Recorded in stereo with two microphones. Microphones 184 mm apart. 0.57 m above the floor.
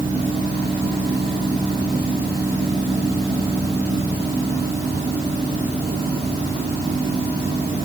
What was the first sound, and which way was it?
Only background noise.